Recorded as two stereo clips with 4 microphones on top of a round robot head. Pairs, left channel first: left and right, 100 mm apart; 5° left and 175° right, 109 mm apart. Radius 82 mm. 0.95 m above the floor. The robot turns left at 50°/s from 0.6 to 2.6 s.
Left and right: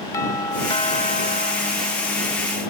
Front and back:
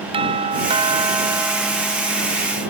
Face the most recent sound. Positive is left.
turn(degrees=55)